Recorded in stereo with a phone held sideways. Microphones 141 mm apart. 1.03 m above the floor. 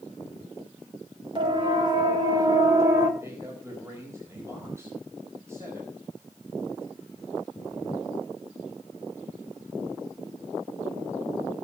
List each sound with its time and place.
1.4 s a siren: 35° right (ahead or behind), 6 m; by 3.1 s 25° right (ahead or behind), 4.5 m
3.2 s a man speaking: 20° right (ahead or behind), 4.5 m